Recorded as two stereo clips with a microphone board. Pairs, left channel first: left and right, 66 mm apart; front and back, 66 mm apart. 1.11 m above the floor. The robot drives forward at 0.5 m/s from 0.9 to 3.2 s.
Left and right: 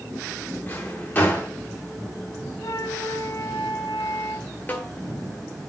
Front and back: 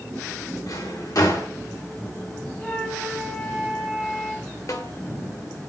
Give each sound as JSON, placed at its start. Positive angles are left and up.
{"t": 0.7, "sound": "a drawer", "azimuth_deg": 25, "distance_m": 2.0}
{"t": 2.6, "sound": "a flute", "azimuth_deg": 65, "distance_m": 1.2}
{"t": 4.7, "sound": "a snare drum", "azimuth_deg": 25, "distance_m": 1.4}